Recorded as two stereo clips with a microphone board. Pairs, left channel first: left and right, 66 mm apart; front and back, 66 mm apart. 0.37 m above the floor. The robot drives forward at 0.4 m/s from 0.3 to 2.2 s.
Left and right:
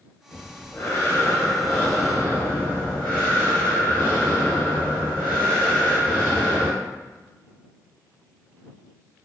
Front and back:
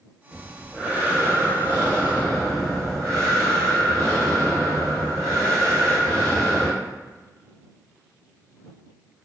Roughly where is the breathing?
Left.